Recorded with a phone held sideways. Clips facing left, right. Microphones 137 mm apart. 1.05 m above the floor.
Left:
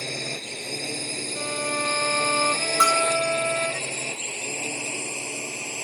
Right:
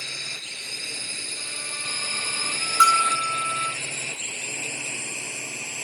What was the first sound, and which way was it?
A drone, 45° left (ahead or behind).